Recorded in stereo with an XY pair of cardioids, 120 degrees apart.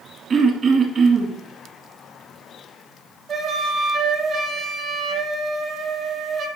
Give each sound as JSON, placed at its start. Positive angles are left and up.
{"t": 0.3, "sound": "throat clearing", "azimuth_deg": -40, "distance_m": 1.9}
{"t": 3.3, "sound": "a flute", "azimuth_deg": -50, "distance_m": 1.7}